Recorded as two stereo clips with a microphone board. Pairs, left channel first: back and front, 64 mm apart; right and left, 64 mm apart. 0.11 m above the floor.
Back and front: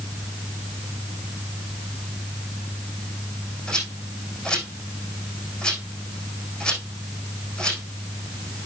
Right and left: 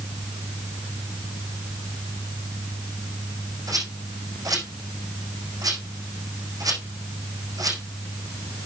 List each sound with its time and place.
3.7 s a rattle: 105° left, 5.5 m